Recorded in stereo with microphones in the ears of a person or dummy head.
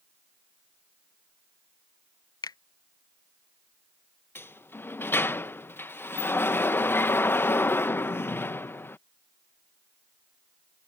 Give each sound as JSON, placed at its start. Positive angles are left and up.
{"t": 2.4, "sound": "a finger snap", "side_deg": 20}
{"t": 4.3, "sound": "a sliding door", "side_deg": 10}